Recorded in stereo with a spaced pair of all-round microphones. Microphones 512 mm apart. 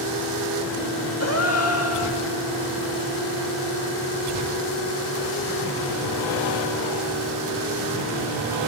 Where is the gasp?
30° left (ahead or behind), 2 m.